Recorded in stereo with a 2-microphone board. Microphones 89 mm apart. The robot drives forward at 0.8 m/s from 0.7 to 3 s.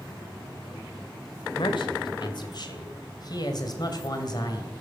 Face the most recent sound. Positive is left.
turn(degrees=50)  # may be behind; listen again after turning